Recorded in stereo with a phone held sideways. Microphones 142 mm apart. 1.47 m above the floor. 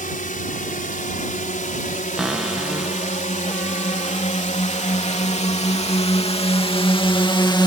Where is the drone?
70° left (ahead or behind); by 7.7 s 30° left (ahead or behind).